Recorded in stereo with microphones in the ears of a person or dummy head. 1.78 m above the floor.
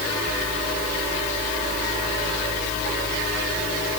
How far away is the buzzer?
No buzzer in this recording.